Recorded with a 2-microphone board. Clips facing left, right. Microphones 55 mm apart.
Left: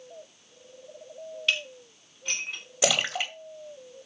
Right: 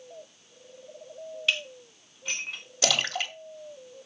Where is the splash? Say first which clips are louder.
Left 2 dB; 15° left (ahead or behind), 2.0 m.